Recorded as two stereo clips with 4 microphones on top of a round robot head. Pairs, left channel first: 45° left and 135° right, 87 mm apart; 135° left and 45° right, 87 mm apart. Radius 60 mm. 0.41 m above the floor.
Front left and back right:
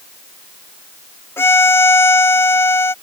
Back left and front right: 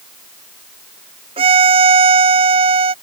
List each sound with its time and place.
1.4 s a violin: 25° right